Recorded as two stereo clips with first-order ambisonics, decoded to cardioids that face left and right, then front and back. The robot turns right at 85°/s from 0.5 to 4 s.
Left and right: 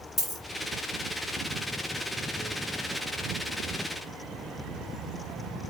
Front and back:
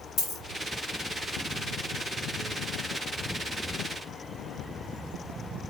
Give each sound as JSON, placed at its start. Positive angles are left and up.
{"t": 0.2, "sound": "a dropped coin", "azimuth_deg": 10, "distance_m": 1.2}